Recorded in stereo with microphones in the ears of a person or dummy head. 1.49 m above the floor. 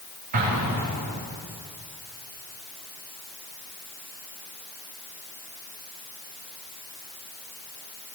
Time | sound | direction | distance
0.3 | an explosion | 35° right (ahead or behind) | 2.5 m